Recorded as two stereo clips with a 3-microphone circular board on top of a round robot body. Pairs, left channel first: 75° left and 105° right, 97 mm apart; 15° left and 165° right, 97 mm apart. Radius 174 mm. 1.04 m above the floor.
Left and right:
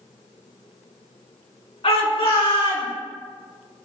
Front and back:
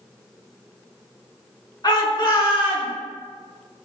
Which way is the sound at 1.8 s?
60° left.